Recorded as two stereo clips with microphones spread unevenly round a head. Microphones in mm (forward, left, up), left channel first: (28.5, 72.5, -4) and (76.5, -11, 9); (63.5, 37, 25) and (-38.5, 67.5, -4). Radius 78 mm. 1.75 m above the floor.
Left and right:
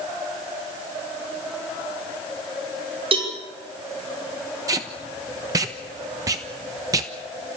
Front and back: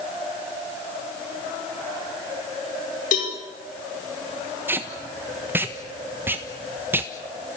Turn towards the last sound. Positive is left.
turn(degrees=-110)